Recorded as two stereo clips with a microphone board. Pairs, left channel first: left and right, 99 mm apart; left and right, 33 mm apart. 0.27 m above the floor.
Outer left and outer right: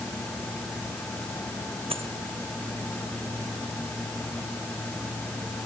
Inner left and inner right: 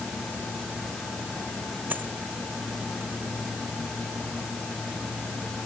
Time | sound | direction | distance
1.9 | a dropped coin | 70° right (ahead or behind) | ?